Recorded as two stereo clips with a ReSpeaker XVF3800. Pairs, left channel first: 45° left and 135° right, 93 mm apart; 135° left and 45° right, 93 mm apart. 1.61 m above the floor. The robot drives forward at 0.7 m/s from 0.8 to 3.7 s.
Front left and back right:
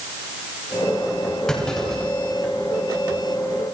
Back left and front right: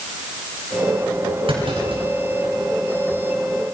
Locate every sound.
1.5 s a clunk: 40° right, 7.5 m; by 2.5 s 45° right, 7 m